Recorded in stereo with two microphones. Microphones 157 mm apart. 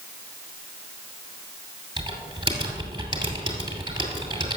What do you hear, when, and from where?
2.0 s typing on a keyboard: 30° right (ahead or behind), 2.5 m